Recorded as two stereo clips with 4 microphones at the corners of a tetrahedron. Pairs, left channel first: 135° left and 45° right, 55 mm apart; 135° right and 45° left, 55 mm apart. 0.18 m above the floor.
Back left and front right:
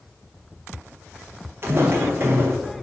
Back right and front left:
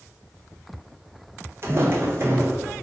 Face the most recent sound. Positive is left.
turn(degrees=0)